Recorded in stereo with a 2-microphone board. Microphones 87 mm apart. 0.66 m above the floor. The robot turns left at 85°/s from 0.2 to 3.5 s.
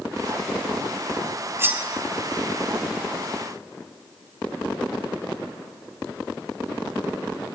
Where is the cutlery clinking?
30° right (ahead or behind), 0.8 m; by 1.8 s 10° right (ahead or behind), 0.8 m.